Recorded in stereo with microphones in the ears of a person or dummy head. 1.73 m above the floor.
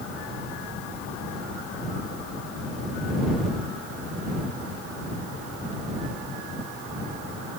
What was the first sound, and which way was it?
Only background noise.